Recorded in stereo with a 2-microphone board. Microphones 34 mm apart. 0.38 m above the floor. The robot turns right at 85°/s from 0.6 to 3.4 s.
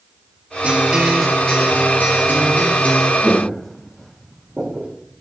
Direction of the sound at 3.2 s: 35° left (ahead or behind).